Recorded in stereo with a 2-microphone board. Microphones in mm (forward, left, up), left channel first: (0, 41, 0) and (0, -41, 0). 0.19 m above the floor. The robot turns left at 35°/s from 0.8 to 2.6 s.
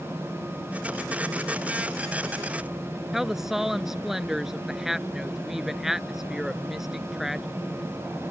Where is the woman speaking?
5° right (ahead or behind).